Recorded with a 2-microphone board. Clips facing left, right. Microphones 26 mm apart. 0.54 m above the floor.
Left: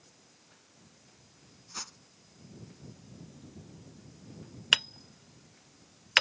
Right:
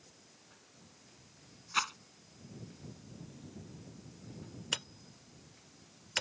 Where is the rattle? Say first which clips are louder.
Right 10 dB; 70° right (ahead or behind).